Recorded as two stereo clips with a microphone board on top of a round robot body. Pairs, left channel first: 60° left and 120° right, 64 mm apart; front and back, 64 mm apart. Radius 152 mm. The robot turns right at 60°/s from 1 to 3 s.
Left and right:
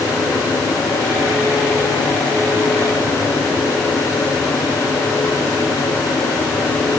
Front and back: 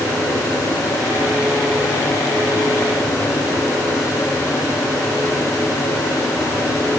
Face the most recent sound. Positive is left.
No sound to turn to.